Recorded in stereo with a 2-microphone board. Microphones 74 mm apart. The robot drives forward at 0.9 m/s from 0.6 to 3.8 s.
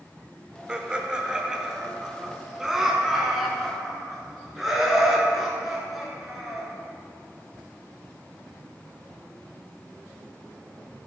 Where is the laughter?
15° right (ahead or behind), 1.2 m; by 6.7 s 5° right (ahead or behind), 3 m.